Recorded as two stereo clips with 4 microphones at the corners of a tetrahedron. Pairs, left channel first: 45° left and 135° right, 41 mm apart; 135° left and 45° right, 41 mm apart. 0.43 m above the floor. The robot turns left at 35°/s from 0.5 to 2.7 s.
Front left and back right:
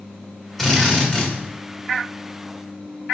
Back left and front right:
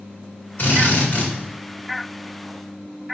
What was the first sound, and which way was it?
A drill, 125° left.